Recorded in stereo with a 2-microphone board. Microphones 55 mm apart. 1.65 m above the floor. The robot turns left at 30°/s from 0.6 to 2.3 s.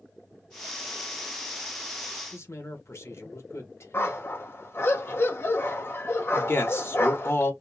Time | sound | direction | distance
2.3 | a man speaking | 55° left (ahead or behind) | 1.6 m
3.9 | a dog barking | 45° left (ahead or behind) | 1.6 m
6.3 | a man speaking | 45° left (ahead or behind) | 1.6 m